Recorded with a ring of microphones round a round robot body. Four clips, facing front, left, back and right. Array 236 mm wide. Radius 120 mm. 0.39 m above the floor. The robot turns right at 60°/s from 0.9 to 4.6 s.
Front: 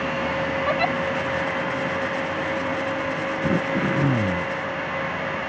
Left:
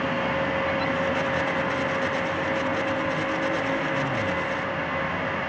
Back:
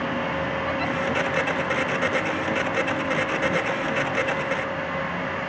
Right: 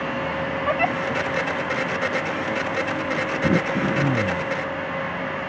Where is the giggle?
60° right; by 1.0 s 55° right.